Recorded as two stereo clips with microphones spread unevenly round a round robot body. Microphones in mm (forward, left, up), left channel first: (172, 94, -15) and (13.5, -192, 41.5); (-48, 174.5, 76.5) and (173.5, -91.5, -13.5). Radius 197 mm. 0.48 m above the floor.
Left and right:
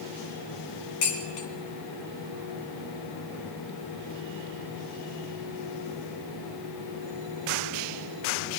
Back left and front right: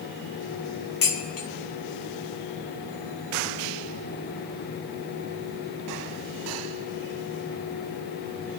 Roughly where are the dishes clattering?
Left.